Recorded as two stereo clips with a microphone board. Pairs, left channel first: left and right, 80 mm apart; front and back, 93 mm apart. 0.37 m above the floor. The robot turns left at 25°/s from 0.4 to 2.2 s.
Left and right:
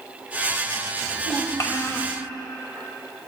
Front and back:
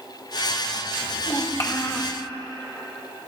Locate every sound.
1.0 s a child speaking: 60° left, 1.2 m; by 2.1 s 30° left, 1.2 m